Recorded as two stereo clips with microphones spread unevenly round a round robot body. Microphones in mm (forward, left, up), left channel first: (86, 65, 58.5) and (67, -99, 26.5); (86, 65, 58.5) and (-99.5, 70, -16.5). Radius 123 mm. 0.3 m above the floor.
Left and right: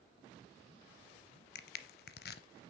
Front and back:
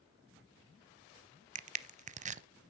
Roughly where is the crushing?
Behind left.